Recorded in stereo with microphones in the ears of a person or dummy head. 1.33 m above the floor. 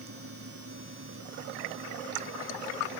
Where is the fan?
65° right (ahead or behind).